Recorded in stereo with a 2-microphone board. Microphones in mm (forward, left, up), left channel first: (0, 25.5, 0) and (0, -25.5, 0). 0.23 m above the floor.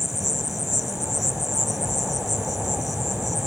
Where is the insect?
Centre (ahead or behind).